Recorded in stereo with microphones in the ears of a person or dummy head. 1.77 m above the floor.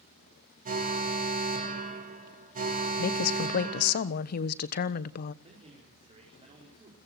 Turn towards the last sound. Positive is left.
turn(degrees=-35)  # may be behind; listen again after turning